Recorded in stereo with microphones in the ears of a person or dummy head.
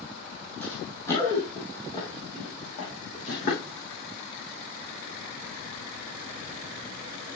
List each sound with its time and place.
0.6 s running footsteps: 10° left (ahead or behind), 3.5 m; by 3.7 s 45° left (ahead or behind), 4 m